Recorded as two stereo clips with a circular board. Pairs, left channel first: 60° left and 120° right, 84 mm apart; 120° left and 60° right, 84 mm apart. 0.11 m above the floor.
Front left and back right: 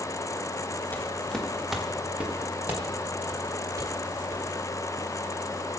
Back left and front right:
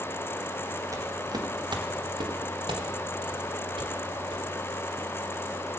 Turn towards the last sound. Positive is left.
turn(degrees=-70)